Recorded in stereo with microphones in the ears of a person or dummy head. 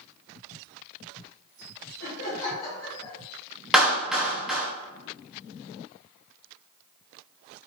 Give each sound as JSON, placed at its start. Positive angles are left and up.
{"t": 2.0, "sound": "laughter", "side_deg": 55, "distance_m": 1.1}
{"t": 3.7, "sound": "a clap", "side_deg": -5, "distance_m": 0.9}